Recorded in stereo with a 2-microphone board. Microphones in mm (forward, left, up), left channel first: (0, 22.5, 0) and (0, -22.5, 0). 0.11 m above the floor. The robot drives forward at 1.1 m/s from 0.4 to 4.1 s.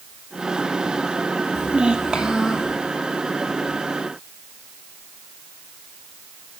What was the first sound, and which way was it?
A child speaking, 25° right (ahead or behind).